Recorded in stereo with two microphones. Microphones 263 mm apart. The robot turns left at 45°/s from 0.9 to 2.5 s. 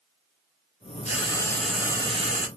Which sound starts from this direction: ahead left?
Frying, at 1.1 s.